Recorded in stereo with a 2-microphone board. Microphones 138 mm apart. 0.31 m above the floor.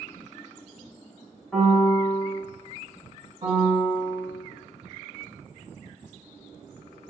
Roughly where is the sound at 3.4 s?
Right.